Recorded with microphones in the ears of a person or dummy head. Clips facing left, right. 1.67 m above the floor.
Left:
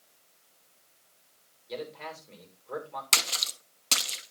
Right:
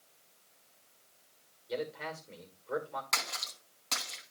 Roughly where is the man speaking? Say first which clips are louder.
Right 1 dB; centre.